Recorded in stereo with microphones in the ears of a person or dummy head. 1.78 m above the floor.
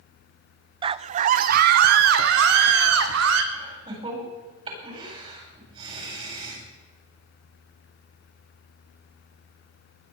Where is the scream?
30° right (ahead or behind), 0.6 m; by 3.4 s 80° right, 2 m.